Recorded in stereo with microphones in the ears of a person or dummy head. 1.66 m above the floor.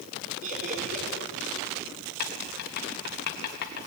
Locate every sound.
0.4 s laughter: 45° right (ahead or behind), 5 m
2.2 s writing: 55° left (ahead or behind), 1.5 m